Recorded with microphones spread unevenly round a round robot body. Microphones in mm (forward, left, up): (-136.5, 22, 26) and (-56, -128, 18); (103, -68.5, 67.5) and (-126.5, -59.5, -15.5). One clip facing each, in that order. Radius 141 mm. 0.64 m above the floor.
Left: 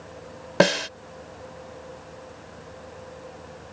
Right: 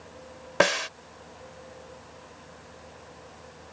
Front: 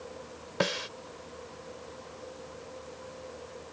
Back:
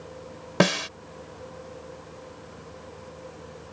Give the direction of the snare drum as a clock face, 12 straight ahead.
6 o'clock.